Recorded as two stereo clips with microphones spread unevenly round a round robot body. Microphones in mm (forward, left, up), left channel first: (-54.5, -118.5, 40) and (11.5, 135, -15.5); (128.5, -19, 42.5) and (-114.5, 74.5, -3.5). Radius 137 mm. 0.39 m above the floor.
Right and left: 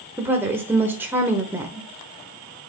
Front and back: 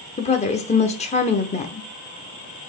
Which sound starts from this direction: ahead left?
A woman speaking, at 0.2 s.